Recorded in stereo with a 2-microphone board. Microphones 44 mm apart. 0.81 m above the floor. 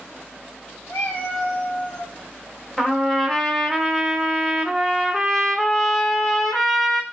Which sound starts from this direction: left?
A cat meowing, at 0.9 s.